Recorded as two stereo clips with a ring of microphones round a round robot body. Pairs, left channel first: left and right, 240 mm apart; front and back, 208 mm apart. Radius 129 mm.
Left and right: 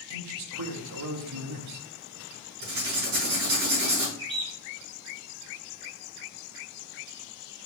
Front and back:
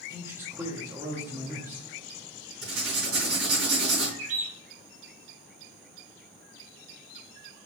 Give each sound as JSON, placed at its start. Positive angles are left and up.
{"t": 0.1, "sound": "a man speaking", "azimuth_deg": -100, "distance_m": 1.1}
{"t": 2.6, "sound": "writing", "azimuth_deg": -140, "distance_m": 4.0}
{"t": 4.2, "sound": "a bird", "azimuth_deg": -160, "distance_m": 3.0}